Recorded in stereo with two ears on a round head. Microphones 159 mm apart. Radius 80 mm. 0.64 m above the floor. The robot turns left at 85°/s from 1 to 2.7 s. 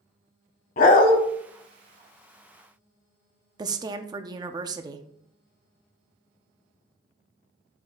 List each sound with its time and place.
0.8 s a dog barking: 50° left (ahead or behind), 1.0 m; by 1.2 s 60° left (ahead or behind), 1.0 m
3.6 s a woman speaking: 25° right (ahead or behind), 0.7 m